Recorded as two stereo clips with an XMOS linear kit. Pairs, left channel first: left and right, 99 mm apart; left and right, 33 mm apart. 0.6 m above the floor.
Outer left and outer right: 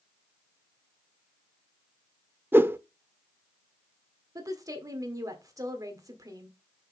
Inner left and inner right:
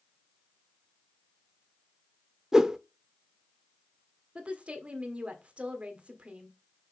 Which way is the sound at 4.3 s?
35° right (ahead or behind).